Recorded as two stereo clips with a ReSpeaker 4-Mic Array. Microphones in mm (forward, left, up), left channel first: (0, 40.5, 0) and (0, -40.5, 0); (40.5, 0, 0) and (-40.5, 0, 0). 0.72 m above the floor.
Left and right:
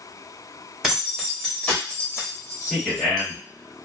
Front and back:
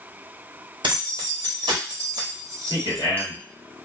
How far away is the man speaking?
About 1.6 m.